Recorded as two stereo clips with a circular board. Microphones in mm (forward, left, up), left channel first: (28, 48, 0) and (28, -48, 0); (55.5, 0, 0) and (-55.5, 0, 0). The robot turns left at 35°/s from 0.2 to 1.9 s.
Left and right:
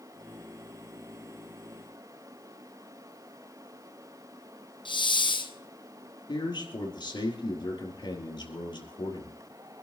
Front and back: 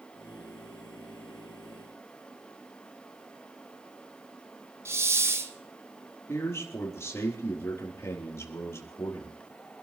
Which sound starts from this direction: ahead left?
A man speaking, at 6.3 s.